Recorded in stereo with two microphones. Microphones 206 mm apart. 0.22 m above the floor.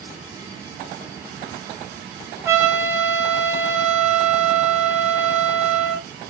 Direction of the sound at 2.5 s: 10° right (ahead or behind).